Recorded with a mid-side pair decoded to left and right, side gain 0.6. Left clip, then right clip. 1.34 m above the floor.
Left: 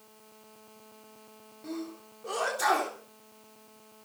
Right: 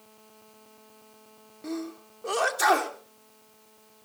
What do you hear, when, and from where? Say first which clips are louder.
1.6 s a sneeze: right 4 dB; 35° right, 3.5 m